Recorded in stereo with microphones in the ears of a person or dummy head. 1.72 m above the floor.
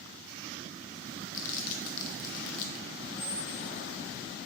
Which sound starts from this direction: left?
Crumpling, at 1.3 s.